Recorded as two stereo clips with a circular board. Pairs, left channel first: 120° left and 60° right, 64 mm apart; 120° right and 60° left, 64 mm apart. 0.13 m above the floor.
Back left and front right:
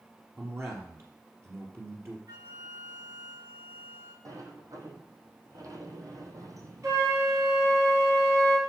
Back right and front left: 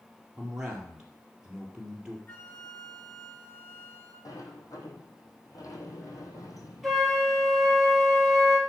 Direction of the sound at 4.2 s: 90° right.